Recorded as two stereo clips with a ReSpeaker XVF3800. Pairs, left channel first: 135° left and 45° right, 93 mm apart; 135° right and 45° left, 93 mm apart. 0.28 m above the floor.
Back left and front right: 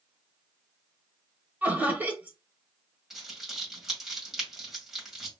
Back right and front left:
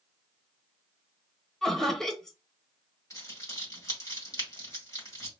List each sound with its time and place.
1.6 s laughter: 60° right, 0.9 m
3.1 s crumpling: 130° right, 1.8 m